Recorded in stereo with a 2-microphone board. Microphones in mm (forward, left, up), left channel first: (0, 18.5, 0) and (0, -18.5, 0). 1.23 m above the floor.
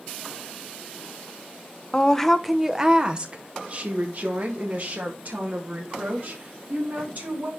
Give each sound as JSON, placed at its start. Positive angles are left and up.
{"t": 1.9, "sound": "a woman speaking", "side_deg": 25, "distance_m": 0.6}